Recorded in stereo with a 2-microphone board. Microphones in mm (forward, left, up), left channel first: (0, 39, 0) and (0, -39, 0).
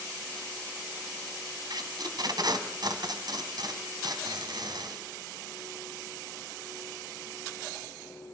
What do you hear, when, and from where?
1.7 s tape being pulled: 60° right (ahead or behind), 2.5 m